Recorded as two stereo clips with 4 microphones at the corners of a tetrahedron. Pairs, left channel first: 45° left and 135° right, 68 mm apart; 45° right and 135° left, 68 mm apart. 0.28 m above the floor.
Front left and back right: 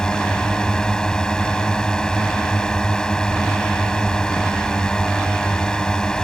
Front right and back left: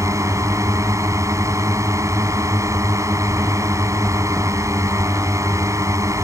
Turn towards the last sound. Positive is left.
turn(degrees=120)